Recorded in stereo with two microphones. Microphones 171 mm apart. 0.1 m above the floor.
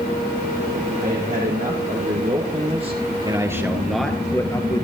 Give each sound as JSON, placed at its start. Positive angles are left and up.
{"t": 1.0, "sound": "a man speaking", "side_deg": -60, "distance_m": 3.5}